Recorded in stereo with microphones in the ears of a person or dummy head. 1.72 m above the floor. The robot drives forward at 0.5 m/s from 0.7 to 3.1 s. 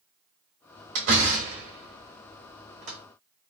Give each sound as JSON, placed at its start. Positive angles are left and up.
{"t": 0.9, "sound": "a door slam", "side_deg": -55, "distance_m": 2.0}